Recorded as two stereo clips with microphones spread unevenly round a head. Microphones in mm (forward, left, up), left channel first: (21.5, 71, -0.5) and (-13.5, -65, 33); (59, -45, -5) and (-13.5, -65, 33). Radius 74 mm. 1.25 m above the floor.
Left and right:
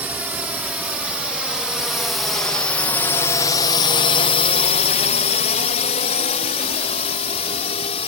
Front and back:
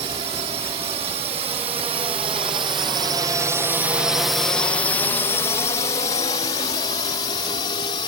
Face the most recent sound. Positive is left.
turn(degrees=25)